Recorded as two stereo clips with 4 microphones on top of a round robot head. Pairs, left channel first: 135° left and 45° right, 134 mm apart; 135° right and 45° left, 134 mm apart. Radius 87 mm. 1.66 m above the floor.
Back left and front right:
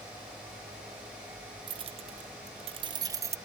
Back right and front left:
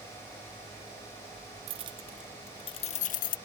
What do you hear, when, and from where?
1.7 s keys jangling: 5° left; by 3.4 s 115° right